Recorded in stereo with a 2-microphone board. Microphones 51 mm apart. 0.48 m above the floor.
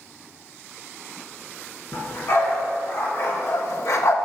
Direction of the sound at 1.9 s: 50° left (ahead or behind).